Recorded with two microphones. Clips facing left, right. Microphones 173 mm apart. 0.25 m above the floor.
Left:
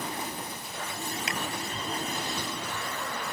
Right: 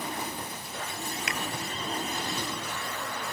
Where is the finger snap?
30° left (ahead or behind).